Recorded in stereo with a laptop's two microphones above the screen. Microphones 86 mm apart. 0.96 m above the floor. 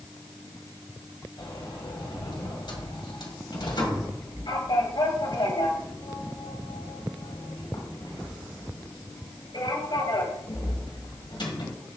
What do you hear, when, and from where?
1.4 s a sliding door: 60° left (ahead or behind), 1.6 m